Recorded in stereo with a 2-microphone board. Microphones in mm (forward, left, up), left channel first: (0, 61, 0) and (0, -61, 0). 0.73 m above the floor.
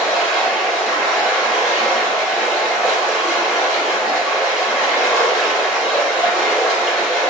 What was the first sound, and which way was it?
Running water, centre (ahead or behind).